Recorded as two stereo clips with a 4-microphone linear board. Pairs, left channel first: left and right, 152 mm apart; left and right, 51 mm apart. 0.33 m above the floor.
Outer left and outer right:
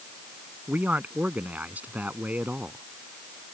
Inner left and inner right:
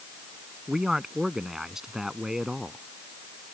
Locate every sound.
0.7 s a man speaking: 10° right (ahead or behind)